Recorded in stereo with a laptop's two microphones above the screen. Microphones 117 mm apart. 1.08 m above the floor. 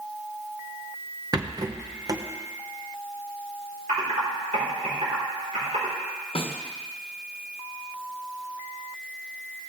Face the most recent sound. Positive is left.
turn(degrees=50)  # may be behind; listen again after turning